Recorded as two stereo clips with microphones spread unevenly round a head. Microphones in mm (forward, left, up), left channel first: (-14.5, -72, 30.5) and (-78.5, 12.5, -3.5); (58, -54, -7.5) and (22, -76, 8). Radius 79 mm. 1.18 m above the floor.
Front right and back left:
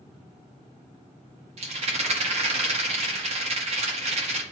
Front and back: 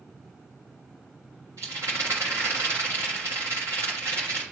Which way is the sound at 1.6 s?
145° left.